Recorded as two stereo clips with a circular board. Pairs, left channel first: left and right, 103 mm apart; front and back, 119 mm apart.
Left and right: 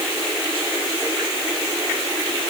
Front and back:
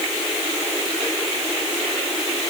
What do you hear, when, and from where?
Only background noise.